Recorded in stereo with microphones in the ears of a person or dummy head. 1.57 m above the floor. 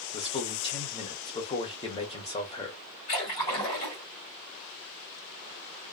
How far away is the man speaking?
About 0.9 m.